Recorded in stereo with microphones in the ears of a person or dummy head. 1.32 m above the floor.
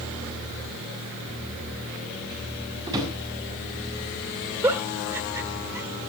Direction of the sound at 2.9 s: 20° right (ahead or behind).